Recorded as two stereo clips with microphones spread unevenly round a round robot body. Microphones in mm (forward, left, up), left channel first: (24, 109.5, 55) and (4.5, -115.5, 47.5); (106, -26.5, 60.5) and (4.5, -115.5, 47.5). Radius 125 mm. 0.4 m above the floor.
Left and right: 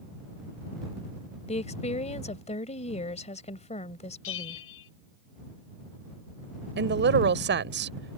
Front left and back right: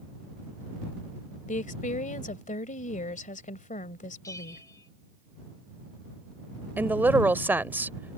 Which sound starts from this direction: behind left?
A bell, at 4.2 s.